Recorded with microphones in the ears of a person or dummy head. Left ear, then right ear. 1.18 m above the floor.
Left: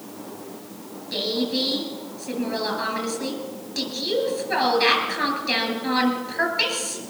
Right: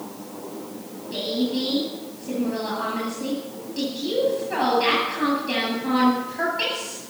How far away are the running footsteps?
No running footsteps in this recording.